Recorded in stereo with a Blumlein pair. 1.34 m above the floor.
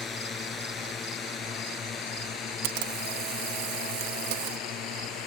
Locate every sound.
0.0 s a drone: 15° left; by 5.3 s 30° left
2.6 s a camera shutter: 45° right